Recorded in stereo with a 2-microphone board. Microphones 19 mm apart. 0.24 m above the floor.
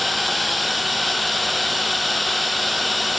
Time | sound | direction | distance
0.0 | a drone | 5° left (ahead or behind) | ?